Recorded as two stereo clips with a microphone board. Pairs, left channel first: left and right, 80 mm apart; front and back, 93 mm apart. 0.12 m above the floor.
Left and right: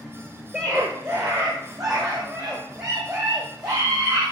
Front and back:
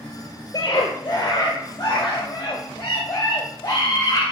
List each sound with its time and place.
0.5 s a scream: 35° right, 1.6 m; by 4.2 s 50° right, 4 m